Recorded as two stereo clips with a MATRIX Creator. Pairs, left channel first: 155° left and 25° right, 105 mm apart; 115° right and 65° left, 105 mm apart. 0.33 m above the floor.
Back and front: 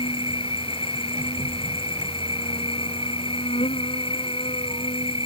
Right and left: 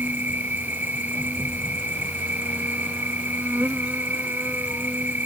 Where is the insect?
140° left.